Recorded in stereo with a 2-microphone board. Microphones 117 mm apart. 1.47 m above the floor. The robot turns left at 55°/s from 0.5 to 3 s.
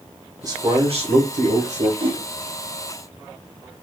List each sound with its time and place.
0.4 s a man speaking: 30° right, 1.2 m; by 1.9 s 110° right, 1.2 m
2.0 s a whoosh: 45° right (ahead or behind), 0.8 m; by 2.2 s 55° right (ahead or behind), 0.8 m